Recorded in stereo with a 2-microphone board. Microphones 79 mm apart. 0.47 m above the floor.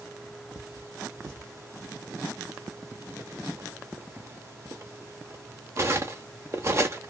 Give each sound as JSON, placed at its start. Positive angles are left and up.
{"t": 0.6, "sound": "cutlery clinking", "side_deg": -40, "distance_m": 0.6}